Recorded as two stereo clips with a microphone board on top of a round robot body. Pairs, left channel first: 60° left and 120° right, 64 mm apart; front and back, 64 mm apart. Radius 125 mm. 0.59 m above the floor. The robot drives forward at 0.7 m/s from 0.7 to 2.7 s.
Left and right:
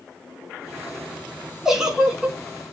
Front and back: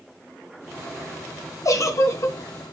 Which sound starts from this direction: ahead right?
A giggle, at 1.6 s.